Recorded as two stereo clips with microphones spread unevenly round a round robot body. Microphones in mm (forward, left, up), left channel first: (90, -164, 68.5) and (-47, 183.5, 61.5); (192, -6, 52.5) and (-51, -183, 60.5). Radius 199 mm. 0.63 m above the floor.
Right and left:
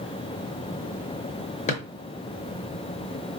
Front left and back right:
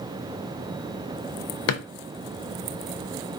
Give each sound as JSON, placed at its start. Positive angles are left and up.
{"t": 1.7, "sound": "a drawer", "azimuth_deg": 0, "distance_m": 0.6}